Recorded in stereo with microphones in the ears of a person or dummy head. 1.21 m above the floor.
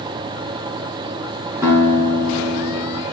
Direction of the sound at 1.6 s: 15° right (ahead or behind).